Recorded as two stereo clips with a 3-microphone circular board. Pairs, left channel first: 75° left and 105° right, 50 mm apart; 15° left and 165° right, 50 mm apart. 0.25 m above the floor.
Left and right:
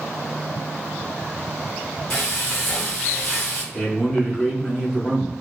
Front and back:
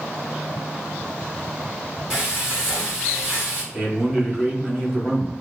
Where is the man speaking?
120° left, 1.1 m.